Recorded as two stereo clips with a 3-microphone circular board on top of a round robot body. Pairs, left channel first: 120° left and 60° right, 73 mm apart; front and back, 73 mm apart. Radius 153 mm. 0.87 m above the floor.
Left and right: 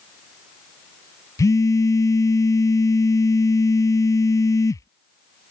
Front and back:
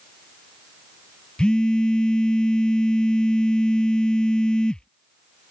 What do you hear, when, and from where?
1.4 s a phone buzzing: 80° left